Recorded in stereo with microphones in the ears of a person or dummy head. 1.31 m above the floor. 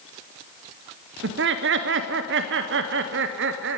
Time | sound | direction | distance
1.2 | laughter | 55° right (ahead or behind) | 0.7 m